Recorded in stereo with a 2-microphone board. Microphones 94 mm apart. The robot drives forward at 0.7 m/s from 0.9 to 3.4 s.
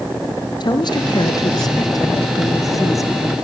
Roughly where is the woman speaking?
Left.